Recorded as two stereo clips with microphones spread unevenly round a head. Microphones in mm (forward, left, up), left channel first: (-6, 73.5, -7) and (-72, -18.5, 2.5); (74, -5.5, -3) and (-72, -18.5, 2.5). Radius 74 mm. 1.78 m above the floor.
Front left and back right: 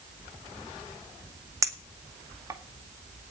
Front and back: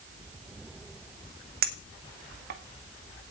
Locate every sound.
1.6 s a clink: straight behind, 2 m